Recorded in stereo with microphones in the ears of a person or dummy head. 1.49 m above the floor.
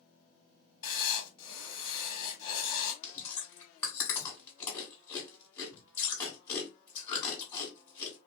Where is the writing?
30° left (ahead or behind), 1.4 m.